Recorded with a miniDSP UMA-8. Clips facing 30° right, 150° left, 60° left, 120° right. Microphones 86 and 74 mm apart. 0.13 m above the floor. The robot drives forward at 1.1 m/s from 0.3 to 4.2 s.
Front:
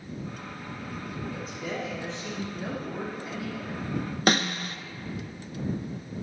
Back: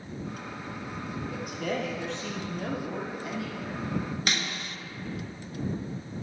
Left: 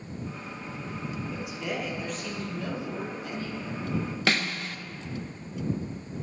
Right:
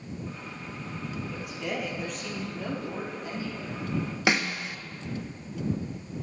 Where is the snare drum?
55° right, 0.5 m.